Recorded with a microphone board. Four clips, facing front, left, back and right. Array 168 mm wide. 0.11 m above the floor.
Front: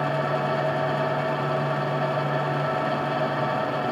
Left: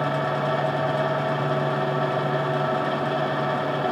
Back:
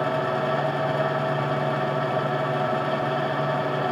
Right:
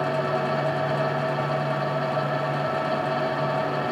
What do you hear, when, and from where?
Only background noise.